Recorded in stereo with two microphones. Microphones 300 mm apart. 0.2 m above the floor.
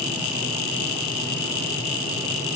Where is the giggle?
No giggle in this recording.